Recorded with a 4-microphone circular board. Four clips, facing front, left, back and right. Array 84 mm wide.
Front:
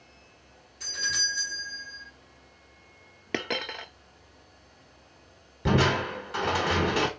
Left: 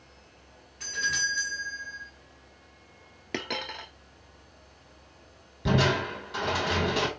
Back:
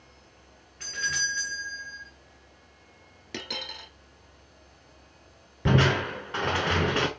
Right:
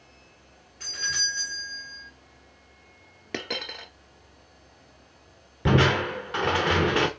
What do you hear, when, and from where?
0.8 s a doorbell: 175° right, 2.5 m
3.3 s a dropped coin: straight ahead, 0.6 m
5.7 s crushing: 110° right, 0.8 m